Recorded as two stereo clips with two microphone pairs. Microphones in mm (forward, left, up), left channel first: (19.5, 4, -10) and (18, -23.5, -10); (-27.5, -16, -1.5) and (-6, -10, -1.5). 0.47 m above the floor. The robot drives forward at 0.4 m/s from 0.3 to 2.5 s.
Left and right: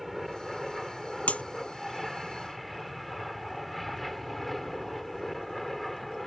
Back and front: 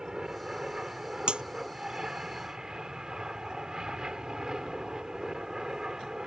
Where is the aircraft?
5° right; by 6.3 s 10° left.